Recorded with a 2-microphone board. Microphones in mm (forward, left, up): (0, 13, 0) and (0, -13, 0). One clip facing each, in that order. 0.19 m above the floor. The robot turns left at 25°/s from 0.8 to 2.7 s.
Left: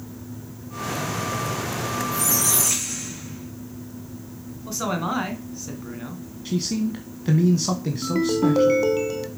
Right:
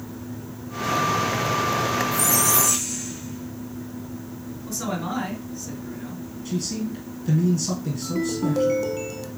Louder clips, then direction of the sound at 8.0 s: Left 5 dB; 25° left (ahead or behind).